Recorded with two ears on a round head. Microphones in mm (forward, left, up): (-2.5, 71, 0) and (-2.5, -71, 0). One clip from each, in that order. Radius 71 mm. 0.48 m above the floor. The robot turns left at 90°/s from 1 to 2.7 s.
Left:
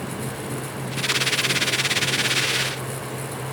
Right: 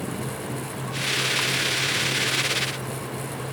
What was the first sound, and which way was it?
Only background noise.